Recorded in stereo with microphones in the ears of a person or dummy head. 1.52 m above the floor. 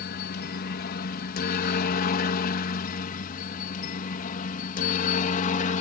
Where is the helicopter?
50° left (ahead or behind); by 5.8 s 35° left (ahead or behind).